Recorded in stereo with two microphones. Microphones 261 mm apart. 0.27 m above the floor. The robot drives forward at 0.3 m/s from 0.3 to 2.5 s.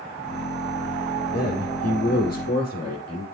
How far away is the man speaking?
About 8 m.